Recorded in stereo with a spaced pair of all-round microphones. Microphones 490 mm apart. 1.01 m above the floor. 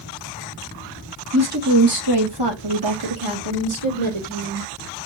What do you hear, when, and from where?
1.3 s a woman speaking: 30° right (ahead or behind), 1.2 m; by 4.7 s 80° right, 1.8 m